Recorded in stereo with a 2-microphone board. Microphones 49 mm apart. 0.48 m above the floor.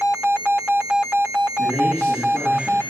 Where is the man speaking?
25° left (ahead or behind), 4.5 m.